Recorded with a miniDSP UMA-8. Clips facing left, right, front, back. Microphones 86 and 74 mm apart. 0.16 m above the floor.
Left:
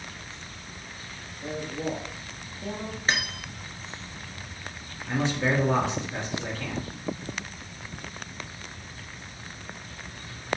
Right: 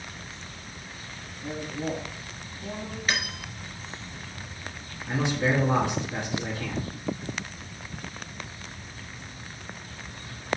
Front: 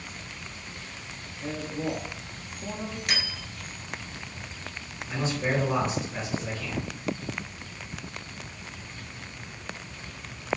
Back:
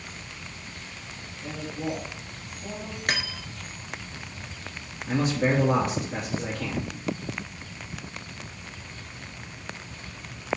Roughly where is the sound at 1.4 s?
Ahead left.